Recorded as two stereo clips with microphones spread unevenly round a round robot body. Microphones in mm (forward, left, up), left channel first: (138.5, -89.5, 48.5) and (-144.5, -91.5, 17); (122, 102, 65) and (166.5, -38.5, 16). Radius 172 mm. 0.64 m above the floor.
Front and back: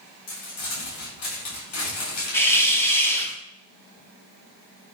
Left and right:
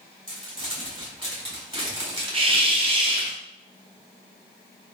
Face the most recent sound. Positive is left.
turn(degrees=-85)